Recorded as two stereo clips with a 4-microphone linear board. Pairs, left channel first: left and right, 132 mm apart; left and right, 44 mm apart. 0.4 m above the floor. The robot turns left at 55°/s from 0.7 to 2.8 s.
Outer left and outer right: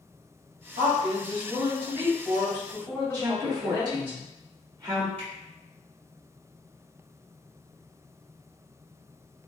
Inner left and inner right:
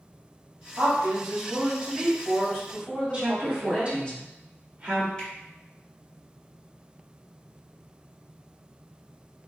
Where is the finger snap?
15° left (ahead or behind), 1.6 m.